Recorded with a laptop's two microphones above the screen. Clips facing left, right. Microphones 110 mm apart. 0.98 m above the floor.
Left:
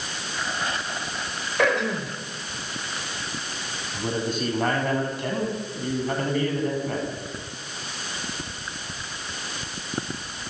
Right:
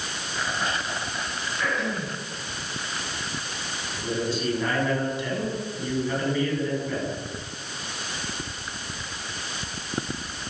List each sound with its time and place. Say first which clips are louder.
1.6 s throat clearing: left 6 dB; 80° left, 5 m
3.9 s a man speaking: left 1 dB; 50° left (ahead or behind), 6.5 m